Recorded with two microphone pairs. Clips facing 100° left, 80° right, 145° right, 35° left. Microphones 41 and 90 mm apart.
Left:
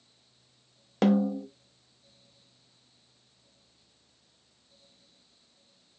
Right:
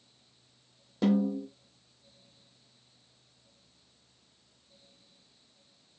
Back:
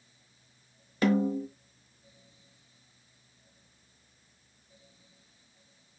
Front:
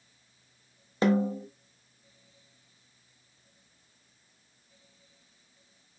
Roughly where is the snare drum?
Left.